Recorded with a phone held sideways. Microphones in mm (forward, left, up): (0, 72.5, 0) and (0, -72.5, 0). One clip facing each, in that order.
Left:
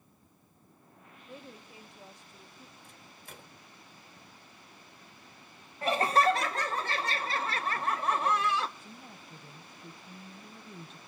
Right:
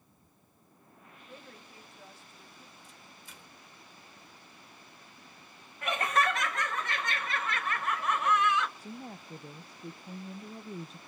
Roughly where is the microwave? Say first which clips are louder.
Left 2 dB; left.